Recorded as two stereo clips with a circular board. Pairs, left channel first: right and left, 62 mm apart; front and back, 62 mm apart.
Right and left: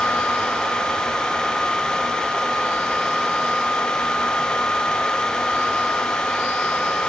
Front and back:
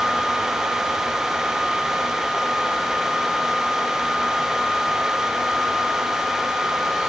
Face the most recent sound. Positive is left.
No sound to turn to.